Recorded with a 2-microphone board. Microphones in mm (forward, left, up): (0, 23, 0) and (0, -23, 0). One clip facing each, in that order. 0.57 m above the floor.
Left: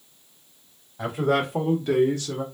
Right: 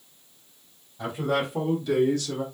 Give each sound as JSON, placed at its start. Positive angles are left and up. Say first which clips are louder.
{"t": 1.0, "sound": "a man speaking", "louder": "left 3 dB", "side_deg": 70, "distance_m": 1.9}